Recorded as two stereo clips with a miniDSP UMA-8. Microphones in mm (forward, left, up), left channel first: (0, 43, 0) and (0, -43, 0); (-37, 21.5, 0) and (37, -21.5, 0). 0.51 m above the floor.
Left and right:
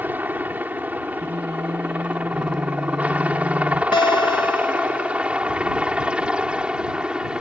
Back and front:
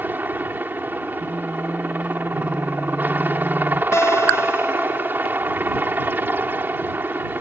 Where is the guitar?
95° left.